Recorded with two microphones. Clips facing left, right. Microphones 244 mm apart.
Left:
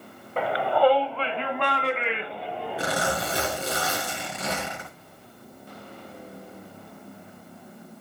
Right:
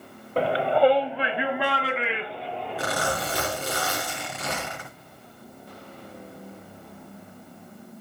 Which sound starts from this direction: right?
A shout, at 0.4 s.